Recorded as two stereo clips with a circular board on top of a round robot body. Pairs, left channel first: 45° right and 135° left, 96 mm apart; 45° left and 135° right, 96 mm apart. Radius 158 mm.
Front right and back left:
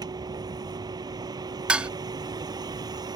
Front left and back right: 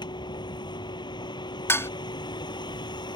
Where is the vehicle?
90° left.